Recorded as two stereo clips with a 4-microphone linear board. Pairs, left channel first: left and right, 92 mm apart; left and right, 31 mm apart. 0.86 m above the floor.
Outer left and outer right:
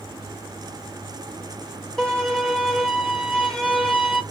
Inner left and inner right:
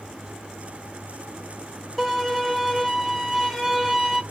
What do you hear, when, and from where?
2.0 s a violin: 5° left (ahead or behind), 1.2 m